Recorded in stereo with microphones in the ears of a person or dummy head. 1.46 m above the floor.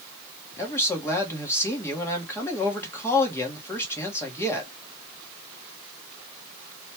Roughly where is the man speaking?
Centre.